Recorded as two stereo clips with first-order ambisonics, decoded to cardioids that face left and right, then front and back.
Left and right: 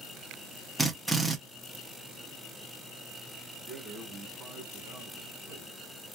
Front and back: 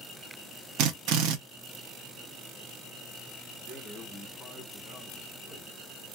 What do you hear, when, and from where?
0.8 s a drill: 175° right, 0.7 m
3.6 s a man speaking: 55° right, 1.0 m